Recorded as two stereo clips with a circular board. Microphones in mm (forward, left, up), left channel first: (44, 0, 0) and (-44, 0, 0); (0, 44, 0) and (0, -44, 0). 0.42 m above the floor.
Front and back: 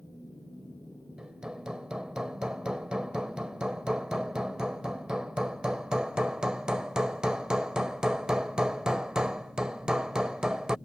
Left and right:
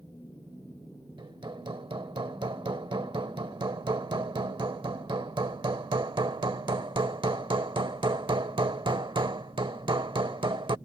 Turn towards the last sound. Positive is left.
turn(degrees=-100)